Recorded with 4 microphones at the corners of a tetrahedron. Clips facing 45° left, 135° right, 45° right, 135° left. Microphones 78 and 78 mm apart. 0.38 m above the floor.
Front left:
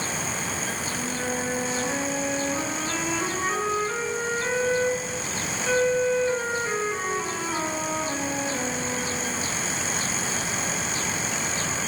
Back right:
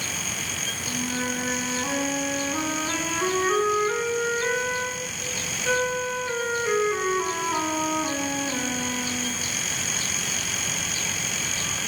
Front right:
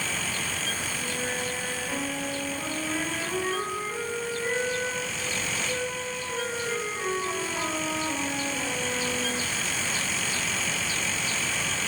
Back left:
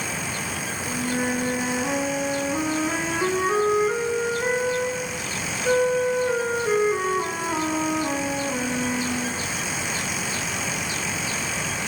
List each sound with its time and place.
0.9 s a flute: 150° left, 5 m